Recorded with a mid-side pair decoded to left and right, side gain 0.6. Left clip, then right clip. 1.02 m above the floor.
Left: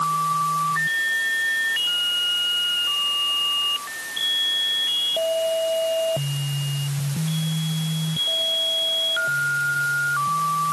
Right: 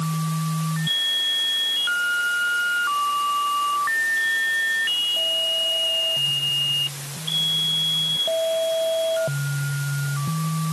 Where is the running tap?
I don't hear a running tap.